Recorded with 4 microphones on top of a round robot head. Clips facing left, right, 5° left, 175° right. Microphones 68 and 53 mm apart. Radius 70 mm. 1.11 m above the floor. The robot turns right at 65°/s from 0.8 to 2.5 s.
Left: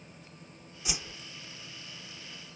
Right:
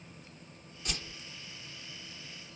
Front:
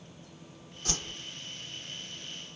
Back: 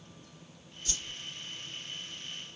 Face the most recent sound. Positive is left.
turn(degrees=120)